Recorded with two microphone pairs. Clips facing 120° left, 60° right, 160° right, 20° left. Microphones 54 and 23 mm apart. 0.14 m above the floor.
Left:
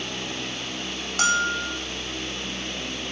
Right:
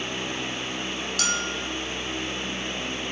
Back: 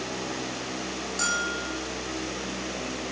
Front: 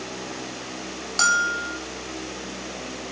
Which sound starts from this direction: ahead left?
A bell, at 1.2 s.